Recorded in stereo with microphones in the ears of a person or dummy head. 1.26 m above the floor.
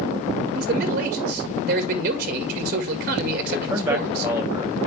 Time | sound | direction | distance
0.6 | a man speaking | 50° right (ahead or behind) | 2 m
3.4 | a man speaking | 15° right (ahead or behind) | 6 m